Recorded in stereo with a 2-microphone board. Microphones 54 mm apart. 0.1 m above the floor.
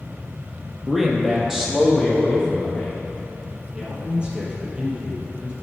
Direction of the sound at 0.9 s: Centre (ahead or behind).